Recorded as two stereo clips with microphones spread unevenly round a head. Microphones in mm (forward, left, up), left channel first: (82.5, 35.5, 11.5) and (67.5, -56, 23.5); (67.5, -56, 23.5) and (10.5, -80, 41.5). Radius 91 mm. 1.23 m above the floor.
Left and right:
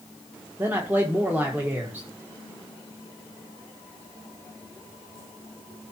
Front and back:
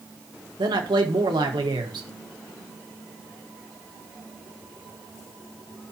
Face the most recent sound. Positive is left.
turn(degrees=180)